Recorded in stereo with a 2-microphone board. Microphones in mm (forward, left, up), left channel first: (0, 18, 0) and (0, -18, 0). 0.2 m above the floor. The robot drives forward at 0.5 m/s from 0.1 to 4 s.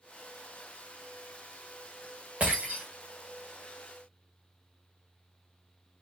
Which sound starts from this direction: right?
Breaking glass, at 2.4 s.